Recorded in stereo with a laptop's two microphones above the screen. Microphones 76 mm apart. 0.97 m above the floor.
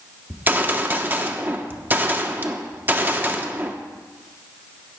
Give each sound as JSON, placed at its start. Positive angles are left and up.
{"t": 0.3, "sound": "a gunshot", "side_deg": -25, "distance_m": 1.0}